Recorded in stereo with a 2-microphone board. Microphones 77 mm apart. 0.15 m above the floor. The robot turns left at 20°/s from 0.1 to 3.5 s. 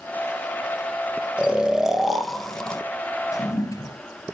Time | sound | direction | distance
1.4 | snoring | 15° right (ahead or behind) | 0.7 m
3.3 | a toilet flushing | 45° left (ahead or behind) | 1.5 m